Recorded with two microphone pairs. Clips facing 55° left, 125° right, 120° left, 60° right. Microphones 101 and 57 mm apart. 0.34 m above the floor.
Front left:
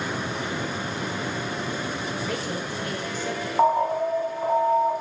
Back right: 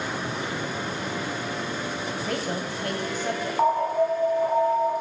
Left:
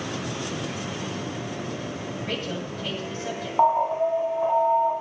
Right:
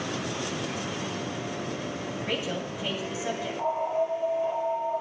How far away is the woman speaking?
About 2 m.